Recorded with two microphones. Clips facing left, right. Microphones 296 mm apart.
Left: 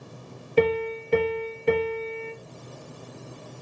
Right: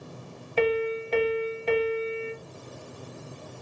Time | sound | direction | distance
0.6 | a piano | 50° left (ahead or behind) | 1.3 m